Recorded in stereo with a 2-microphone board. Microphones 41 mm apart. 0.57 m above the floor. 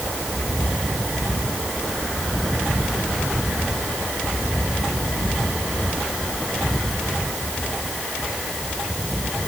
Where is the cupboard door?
I don't hear a cupboard door.